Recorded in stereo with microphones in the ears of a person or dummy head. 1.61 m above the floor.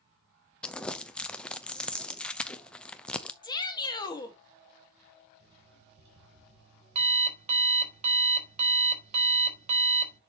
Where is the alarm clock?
40° right (ahead or behind), 3 m.